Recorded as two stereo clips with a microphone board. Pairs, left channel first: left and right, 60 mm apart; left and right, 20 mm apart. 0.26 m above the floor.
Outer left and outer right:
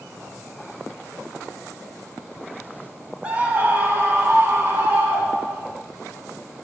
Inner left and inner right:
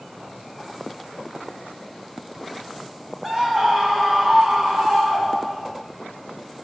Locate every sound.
3.2 s a scream: 20° right (ahead or behind), 1.0 m; by 5.7 s 40° right (ahead or behind), 3 m